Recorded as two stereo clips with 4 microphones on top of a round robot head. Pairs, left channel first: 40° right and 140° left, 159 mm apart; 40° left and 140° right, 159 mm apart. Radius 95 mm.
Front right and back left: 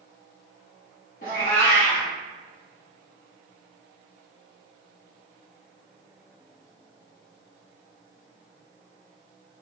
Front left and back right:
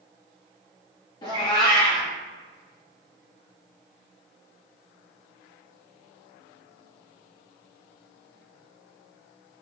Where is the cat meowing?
20° right, 1.2 m.